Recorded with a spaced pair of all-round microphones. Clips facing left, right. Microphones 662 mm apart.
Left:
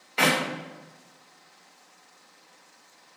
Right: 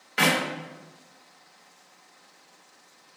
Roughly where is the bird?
No bird in this recording.